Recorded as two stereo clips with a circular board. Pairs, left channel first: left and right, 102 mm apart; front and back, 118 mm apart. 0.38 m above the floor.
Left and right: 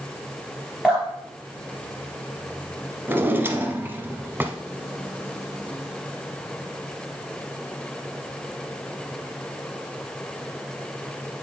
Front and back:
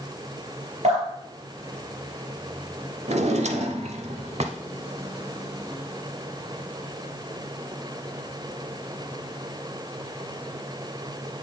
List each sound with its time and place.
0.8 s dripping: 170° right, 3.5 m
3.1 s a drawer: 160° right, 0.7 m